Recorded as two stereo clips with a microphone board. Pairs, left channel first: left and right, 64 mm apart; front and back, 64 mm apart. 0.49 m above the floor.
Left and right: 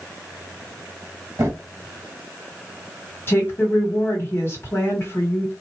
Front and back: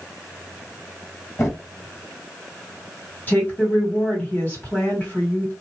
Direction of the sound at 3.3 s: 50° left.